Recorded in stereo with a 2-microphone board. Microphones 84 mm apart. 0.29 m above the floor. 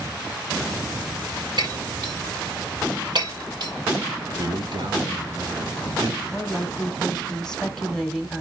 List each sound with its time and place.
1.6 s breaking glass: 60° right (ahead or behind), 4.5 m
4.4 s a man speaking: 60° right (ahead or behind), 2.5 m
6.3 s a woman speaking: 5° left (ahead or behind), 1.5 m